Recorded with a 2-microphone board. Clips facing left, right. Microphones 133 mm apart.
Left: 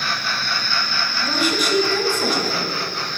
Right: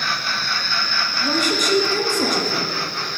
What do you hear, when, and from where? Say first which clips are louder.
1.2 s a woman speaking: even; 45° right (ahead or behind), 1.9 m